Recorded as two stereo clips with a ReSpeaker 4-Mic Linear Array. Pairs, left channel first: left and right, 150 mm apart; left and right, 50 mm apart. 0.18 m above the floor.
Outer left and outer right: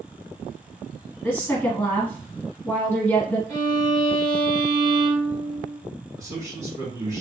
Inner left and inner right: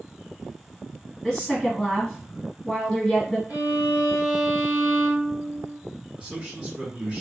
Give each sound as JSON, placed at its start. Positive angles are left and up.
{"t": 1.2, "sound": "a woman speaking", "side_deg": 15, "distance_m": 1.4}
{"t": 3.5, "sound": "a violin", "side_deg": -35, "distance_m": 1.8}
{"t": 6.2, "sound": "a man speaking", "side_deg": -20, "distance_m": 1.2}